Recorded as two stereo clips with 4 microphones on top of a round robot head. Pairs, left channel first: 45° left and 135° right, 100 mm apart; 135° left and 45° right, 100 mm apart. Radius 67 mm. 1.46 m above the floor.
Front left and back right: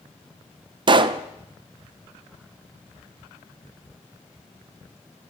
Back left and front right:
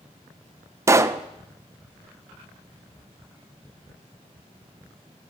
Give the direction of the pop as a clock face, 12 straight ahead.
3 o'clock.